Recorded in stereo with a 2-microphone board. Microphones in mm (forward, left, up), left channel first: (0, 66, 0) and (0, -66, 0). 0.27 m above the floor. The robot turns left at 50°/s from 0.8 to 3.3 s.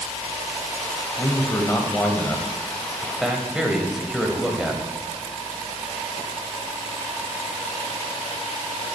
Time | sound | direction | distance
1.2 | a man speaking | 25° left (ahead or behind) | 1.0 m